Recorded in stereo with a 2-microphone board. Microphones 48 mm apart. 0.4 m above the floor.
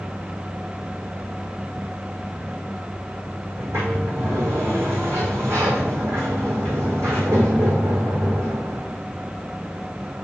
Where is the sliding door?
60° right (ahead or behind), 3.5 m.